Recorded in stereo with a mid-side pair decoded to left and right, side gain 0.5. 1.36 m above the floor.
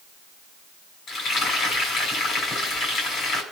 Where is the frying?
50° left, 6 m.